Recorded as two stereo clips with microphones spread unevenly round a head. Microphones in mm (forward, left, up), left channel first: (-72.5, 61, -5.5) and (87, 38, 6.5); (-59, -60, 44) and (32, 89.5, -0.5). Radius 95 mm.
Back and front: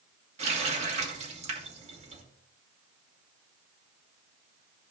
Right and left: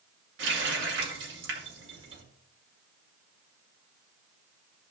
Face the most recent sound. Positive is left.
turn(degrees=35)